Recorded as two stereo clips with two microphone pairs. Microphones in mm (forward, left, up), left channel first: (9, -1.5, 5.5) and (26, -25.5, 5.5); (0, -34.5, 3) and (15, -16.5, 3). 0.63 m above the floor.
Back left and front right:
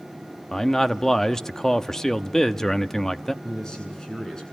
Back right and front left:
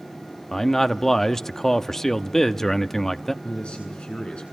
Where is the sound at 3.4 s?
165° right, 8 m.